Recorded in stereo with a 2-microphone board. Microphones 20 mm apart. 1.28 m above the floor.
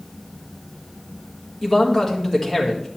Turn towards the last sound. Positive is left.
turn(degrees=15)  # may be behind; listen again after turning